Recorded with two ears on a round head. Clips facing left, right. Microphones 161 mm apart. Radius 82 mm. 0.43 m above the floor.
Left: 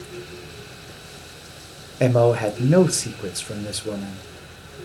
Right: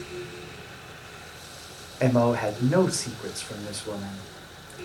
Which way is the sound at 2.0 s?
40° left (ahead or behind).